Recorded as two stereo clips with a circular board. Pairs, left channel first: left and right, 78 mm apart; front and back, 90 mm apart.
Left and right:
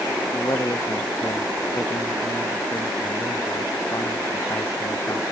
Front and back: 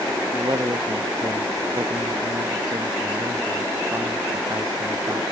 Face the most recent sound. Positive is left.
turn(degrees=135)